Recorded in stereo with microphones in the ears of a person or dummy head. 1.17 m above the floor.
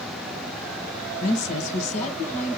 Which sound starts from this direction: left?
A woman speaking, at 1.2 s.